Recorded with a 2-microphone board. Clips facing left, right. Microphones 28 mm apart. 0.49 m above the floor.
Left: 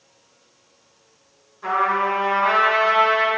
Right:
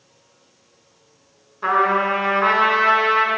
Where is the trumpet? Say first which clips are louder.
Right 3 dB; 50° right (ahead or behind), 1.6 m.